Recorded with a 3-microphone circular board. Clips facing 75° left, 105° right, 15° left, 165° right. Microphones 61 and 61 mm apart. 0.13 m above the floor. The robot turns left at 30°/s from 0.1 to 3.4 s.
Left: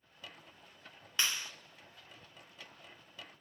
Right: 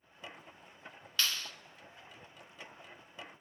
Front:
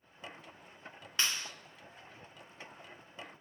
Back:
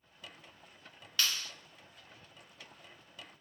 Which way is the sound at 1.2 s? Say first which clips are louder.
Even, even; 35° left.